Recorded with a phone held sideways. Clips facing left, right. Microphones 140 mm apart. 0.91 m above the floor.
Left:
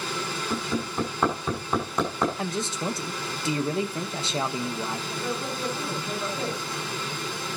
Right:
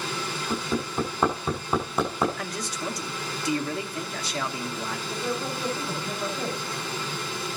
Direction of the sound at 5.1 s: 5° right (ahead or behind).